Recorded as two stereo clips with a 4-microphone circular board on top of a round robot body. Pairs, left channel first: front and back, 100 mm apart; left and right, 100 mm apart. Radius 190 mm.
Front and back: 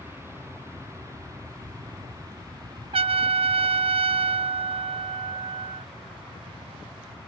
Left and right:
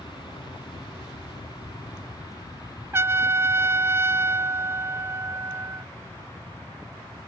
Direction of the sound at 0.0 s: 120° left.